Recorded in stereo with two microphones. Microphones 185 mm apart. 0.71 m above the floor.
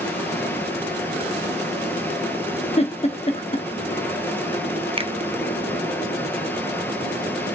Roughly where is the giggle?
Left.